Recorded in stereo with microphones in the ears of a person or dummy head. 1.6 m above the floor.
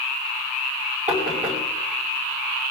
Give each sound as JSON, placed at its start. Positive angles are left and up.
{"t": 1.1, "sound": "knocking", "side_deg": -35, "distance_m": 5.5}